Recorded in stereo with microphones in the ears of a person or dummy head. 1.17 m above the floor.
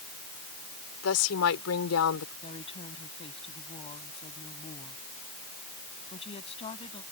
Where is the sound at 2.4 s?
30° left (ahead or behind).